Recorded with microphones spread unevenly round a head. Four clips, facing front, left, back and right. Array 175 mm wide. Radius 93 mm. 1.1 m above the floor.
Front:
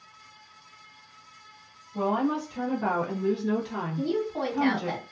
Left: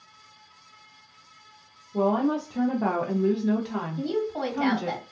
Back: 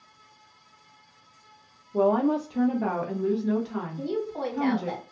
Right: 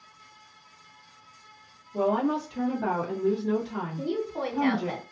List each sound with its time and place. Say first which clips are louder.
1.9 s a woman speaking: left 2 dB, back 4 dB; 165° left, 0.7 m; by 5.0 s 70° left, 1.5 m
4.0 s a woman speaking: left 2 dB, front 2 dB; 80° left, 1.7 m